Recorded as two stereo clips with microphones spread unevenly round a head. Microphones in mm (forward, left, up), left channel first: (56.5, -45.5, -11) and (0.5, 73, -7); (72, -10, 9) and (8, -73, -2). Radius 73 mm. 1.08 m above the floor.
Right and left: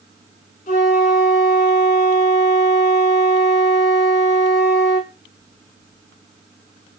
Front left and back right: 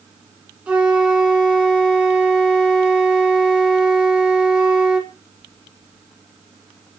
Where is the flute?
60° right, 1.8 m.